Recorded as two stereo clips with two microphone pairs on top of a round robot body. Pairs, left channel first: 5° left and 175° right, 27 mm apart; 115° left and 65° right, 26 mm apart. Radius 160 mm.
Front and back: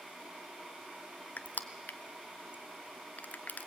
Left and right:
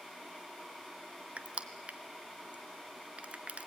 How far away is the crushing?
About 0.5 m.